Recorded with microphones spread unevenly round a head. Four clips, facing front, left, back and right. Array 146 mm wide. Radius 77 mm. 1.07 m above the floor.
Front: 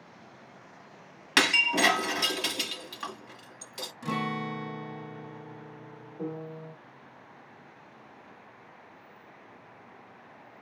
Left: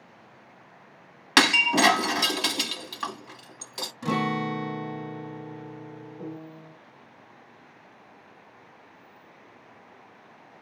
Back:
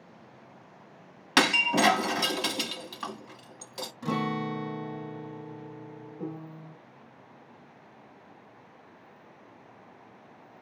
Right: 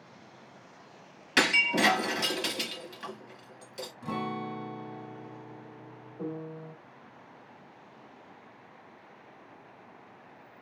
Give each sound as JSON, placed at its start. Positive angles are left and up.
{"t": 1.4, "sound": "breaking glass", "azimuth_deg": 140, "distance_m": 1.2}
{"t": 4.0, "sound": "a guitar", "azimuth_deg": 90, "distance_m": 0.6}
{"t": 6.2, "sound": "a piano", "azimuth_deg": -40, "distance_m": 4.0}